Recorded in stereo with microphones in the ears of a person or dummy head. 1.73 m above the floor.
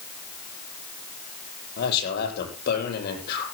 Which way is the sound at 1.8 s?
60° left (ahead or behind).